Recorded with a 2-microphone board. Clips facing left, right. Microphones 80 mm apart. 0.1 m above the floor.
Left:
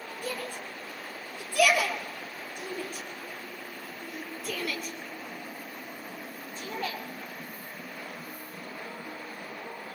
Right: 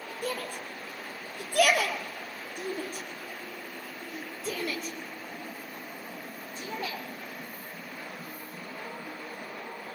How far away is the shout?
About 2.5 m.